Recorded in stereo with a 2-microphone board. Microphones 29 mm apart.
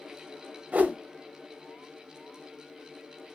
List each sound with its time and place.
0.7 s a whoosh: 60° right (ahead or behind), 0.6 m